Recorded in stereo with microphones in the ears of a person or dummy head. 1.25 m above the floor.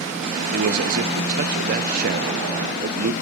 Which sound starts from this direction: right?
A man speaking, at 0.5 s.